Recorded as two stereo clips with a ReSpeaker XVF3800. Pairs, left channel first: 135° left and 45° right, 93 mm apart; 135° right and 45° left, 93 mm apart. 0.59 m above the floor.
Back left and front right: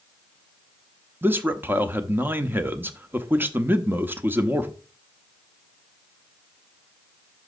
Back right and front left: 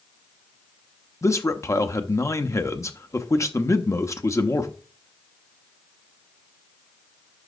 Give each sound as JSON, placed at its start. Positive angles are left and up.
{"t": 1.2, "sound": "a man speaking", "azimuth_deg": -100, "distance_m": 0.8}